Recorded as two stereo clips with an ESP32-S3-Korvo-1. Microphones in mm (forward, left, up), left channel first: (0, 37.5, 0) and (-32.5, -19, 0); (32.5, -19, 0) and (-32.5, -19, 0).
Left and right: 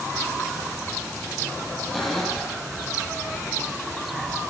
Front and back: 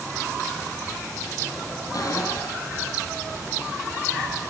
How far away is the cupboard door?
About 8.5 m.